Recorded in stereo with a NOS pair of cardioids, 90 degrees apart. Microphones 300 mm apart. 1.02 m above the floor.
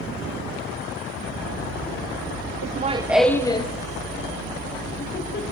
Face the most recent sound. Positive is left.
turn(degrees=35)